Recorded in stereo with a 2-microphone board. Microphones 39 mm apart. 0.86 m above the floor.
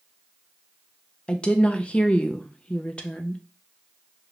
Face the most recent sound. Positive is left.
turn(degrees=25)  # may be behind; listen again after turning